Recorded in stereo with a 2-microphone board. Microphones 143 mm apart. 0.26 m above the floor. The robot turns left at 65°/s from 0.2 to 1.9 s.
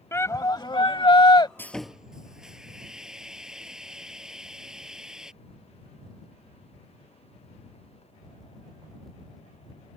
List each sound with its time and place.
0.1 s a shout: 145° left; by 1.5 s 60° left
1.6 s sawing: 15° left (ahead or behind); by 5.3 s 5° right (ahead or behind)